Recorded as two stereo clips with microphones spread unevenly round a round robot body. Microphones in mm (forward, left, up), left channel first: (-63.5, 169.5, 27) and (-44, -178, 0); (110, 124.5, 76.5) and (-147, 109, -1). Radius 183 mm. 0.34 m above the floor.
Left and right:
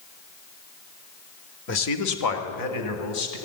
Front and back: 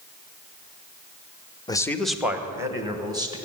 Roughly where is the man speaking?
Left.